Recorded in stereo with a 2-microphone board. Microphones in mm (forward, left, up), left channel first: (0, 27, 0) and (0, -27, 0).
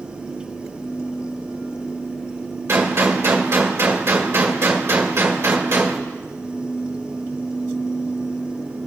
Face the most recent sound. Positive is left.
turn(degrees=-55)  # may be behind; listen again after turning